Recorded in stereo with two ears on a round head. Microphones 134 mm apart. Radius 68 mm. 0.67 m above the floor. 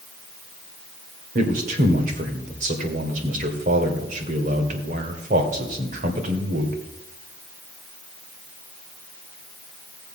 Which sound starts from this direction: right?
A man speaking, at 1.4 s.